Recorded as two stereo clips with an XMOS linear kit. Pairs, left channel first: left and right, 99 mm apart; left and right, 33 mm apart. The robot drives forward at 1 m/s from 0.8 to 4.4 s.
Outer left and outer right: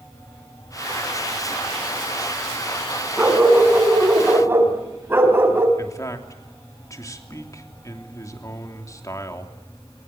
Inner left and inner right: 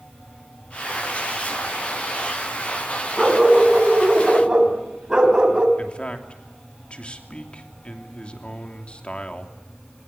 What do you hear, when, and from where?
3.2 s a dog barking: 15° right (ahead or behind), 5 m; by 5.7 s 20° right (ahead or behind), 4 m
5.8 s a man speaking: 35° left (ahead or behind), 3 m